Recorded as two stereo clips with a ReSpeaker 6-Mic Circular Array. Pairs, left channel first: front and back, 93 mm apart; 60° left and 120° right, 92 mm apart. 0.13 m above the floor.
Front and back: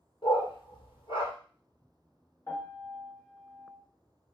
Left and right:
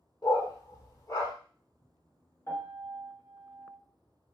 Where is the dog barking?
10° left, 1.1 m.